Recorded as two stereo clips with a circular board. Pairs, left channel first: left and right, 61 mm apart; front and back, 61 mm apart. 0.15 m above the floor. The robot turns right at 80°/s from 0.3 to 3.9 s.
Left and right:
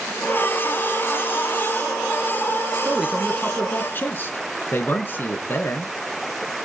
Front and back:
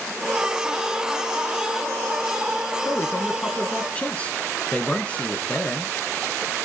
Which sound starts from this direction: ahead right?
A man speaking, at 2.9 s.